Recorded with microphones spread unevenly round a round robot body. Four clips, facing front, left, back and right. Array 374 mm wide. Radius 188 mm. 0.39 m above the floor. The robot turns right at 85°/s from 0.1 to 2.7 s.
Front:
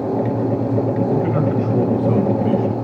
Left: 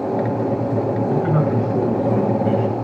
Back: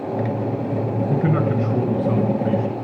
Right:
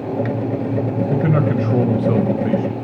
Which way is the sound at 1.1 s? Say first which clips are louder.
Right 2 dB, front 2 dB; 150° right.